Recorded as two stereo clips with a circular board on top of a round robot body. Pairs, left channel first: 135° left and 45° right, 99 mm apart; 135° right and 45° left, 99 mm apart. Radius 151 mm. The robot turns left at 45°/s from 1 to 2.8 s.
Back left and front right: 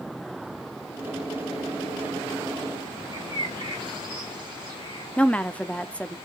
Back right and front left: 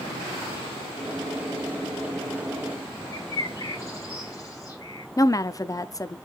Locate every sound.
3.1 s a bird: 80° right, 3 m
5.2 s a woman speaking: 155° right, 0.9 m